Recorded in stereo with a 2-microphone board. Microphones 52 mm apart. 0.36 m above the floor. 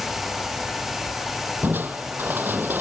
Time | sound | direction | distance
1.6 | crushing | 35° right (ahead or behind) | ?